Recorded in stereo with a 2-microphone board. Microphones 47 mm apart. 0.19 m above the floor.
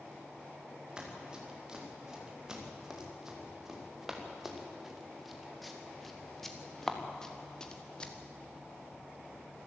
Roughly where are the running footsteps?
Centre.